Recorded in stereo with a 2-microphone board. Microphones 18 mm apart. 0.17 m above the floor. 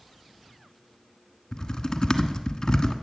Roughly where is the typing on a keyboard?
Left.